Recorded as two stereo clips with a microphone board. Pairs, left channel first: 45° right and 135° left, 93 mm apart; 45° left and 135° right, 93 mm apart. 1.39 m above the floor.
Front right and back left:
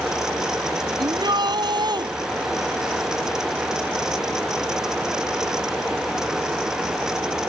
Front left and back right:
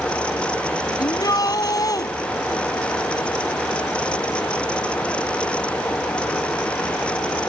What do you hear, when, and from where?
1.0 s a shout: 95° left